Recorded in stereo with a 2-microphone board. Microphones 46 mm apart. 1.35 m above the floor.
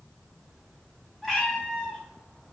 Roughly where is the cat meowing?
Centre.